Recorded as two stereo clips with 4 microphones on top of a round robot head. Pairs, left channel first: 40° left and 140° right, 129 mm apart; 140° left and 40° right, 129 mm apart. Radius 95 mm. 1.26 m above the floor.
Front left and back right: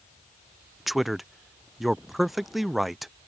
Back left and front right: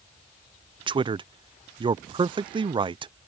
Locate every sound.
0.9 s a man speaking: 50° right